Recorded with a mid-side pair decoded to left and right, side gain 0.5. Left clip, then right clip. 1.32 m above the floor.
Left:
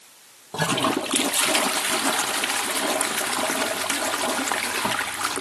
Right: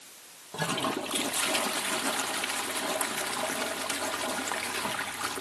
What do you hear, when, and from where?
0.5 s a toilet flushing: 50° left, 0.9 m